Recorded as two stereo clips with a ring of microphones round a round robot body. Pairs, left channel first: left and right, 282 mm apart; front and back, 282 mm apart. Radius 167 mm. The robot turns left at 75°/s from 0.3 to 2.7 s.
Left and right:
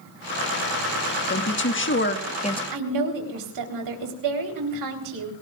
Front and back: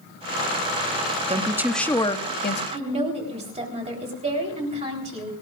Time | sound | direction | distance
1.3 | a woman speaking | 120° left | 1.3 m
2.7 | a woman speaking | 110° right | 3.5 m